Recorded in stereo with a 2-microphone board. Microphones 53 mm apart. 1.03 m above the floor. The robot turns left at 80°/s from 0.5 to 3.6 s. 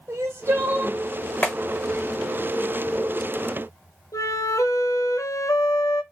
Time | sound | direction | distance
0.1 | crying | 130° right | 1.2 m
1.4 | a clap | 30° left (ahead or behind) | 1.0 m
4.1 | a flute | 85° left | 0.8 m